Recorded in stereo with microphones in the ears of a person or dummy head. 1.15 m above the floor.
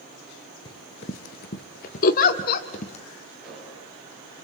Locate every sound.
0.7 s running footsteps: 20° left (ahead or behind), 1.3 m; by 3.0 s 40° left (ahead or behind), 2 m
2.0 s a giggle: 50° left (ahead or behind), 1.4 m
3.4 s an explosion: 5° right (ahead or behind), 6 m